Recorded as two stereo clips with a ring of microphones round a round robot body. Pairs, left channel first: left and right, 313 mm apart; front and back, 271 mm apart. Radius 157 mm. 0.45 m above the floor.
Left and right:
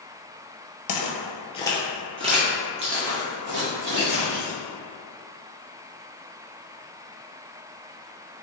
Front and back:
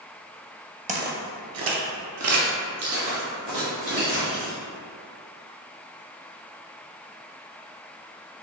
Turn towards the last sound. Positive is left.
turn(degrees=-125)